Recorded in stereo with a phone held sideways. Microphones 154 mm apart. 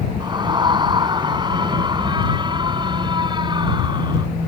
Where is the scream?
30° right (ahead or behind).